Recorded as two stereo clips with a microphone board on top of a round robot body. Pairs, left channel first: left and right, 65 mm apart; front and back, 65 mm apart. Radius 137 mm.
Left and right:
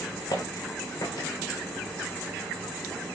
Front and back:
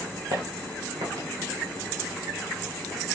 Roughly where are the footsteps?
Behind left.